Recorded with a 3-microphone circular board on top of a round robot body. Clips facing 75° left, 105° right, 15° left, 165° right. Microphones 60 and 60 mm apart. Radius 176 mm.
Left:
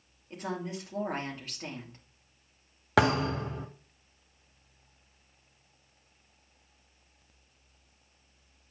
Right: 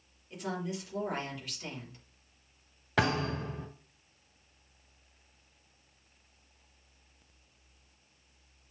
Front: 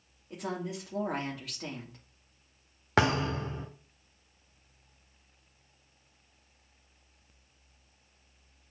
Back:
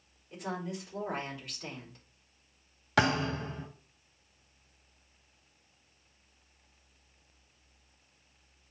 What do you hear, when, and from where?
0.3 s a woman speaking: 25° left, 2.5 m
3.0 s a thud: 75° left, 1.0 m